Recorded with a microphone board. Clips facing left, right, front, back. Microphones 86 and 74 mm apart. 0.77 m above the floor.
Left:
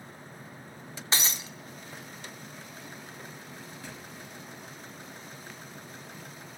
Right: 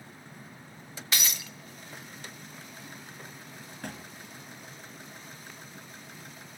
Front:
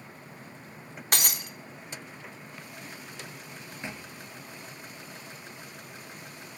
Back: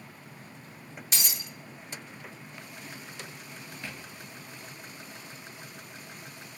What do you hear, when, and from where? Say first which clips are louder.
1.1 s breaking glass: left 2 dB, front 6 dB; 30° left, 0.9 m
3.8 s a thud: right 3 dB, front 3 dB; 70° right, 1.1 m